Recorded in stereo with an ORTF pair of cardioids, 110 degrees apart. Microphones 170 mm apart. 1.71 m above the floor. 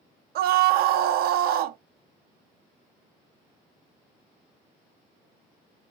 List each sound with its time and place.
0.3 s a scream: 65° right, 0.6 m